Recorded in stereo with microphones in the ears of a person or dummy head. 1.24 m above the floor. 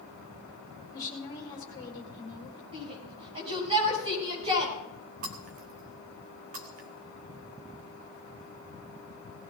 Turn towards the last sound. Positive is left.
turn(degrees=-40)  # may be behind; listen again after turning